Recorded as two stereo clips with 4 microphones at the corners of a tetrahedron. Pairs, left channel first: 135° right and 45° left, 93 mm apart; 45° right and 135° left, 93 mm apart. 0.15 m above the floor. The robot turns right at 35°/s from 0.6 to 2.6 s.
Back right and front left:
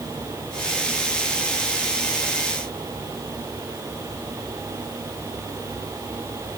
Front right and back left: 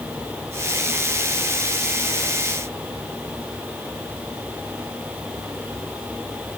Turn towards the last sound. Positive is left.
No sound to turn to.